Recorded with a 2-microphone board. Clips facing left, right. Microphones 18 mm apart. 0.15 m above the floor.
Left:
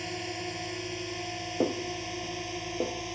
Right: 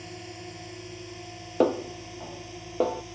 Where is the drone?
30° left (ahead or behind).